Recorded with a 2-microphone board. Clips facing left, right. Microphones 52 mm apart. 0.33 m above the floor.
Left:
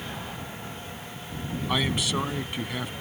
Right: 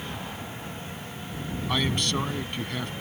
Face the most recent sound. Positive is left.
turn(degrees=5)  # may be behind; listen again after turning